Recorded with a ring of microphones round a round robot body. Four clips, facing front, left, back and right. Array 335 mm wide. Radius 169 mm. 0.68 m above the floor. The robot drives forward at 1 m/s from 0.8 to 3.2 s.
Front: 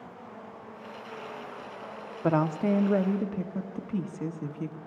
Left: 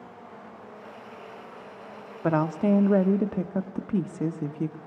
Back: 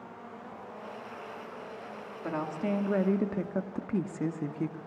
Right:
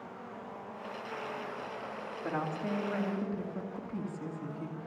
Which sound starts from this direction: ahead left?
A woman speaking, at 2.2 s.